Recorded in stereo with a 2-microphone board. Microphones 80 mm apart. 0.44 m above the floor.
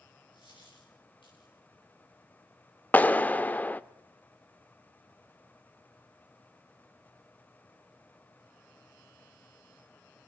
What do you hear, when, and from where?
0.3 s a dropped coin: 80° left, 9.5 m
2.9 s a clap: 20° left (ahead or behind), 0.6 m